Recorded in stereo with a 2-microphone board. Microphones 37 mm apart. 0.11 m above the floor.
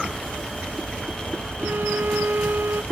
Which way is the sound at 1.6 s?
85° right.